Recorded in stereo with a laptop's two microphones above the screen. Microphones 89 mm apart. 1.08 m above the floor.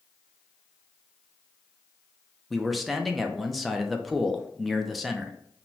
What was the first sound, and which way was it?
A man speaking, centre (ahead or behind).